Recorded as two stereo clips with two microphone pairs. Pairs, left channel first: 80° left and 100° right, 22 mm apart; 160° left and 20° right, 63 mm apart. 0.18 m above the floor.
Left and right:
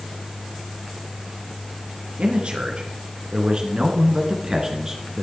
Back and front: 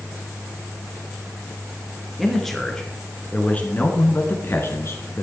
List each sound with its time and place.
2.2 s a man speaking: 115° right, 3 m; by 5.2 s 175° right, 3 m